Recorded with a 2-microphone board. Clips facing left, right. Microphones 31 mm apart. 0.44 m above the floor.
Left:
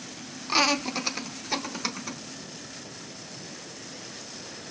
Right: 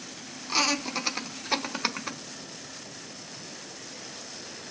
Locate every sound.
0.5 s laughter: 25° left (ahead or behind), 0.7 m; by 2.2 s 30° right (ahead or behind), 1.4 m